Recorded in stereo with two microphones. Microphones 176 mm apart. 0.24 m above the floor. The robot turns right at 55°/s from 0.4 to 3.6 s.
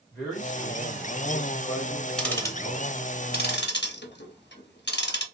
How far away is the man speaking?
About 1.9 m.